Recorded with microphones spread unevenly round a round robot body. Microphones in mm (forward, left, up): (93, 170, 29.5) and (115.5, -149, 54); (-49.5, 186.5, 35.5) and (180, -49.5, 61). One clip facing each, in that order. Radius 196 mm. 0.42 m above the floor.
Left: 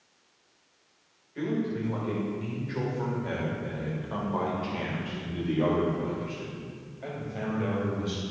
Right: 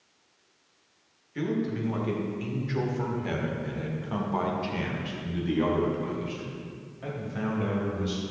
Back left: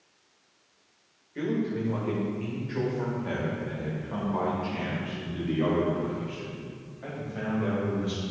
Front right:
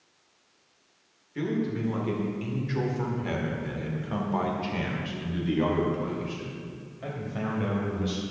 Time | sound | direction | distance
1.4 | a man speaking | 115° right | 1.9 m